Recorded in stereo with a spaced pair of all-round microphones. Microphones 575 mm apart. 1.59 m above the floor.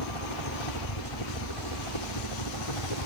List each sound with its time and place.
0.0 s a helicopter: 65° left (ahead or behind); by 3.1 s 60° left (ahead or behind)